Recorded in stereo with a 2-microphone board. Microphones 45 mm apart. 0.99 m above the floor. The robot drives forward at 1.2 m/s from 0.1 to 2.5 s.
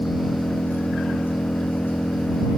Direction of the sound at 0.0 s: 50° left (ahead or behind).